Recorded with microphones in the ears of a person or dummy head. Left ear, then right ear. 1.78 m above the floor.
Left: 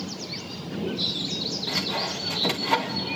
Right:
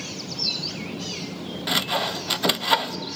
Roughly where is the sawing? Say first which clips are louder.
Right 7 dB; right.